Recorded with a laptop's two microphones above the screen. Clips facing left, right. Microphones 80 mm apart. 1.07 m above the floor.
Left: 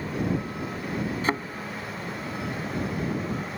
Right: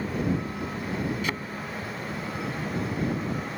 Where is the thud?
35° left (ahead or behind).